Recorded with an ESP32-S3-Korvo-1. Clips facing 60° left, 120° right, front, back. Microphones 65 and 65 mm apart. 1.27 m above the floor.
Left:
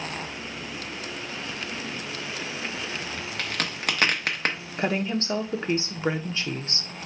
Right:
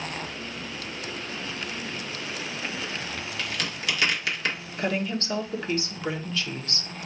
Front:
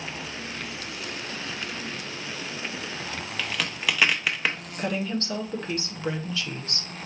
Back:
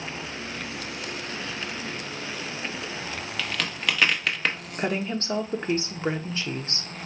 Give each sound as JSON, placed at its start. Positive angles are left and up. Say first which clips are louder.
{"t": 3.4, "sound": "a crack", "louder": "left 3 dB, even", "azimuth_deg": 80, "distance_m": 0.9}
{"t": 4.8, "sound": "a woman speaking", "louder": "left 2 dB, back 1 dB", "azimuth_deg": 120, "distance_m": 0.8}